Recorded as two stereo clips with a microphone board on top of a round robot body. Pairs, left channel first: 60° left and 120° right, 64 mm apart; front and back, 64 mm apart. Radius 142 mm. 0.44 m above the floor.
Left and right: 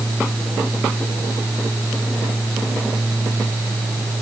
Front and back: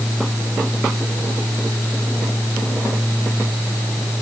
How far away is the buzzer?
I don't hear a buzzer.